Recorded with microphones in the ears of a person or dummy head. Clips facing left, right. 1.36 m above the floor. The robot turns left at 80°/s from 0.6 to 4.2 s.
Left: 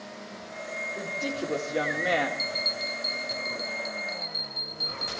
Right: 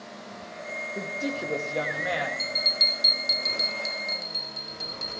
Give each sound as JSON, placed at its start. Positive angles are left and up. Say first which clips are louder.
{"t": 0.9, "sound": "a woman speaking", "louder": "right 1 dB", "azimuth_deg": -145, "distance_m": 1.8}
{"t": 2.4, "sound": "a bell", "louder": "left 1 dB", "azimuth_deg": -5, "distance_m": 0.9}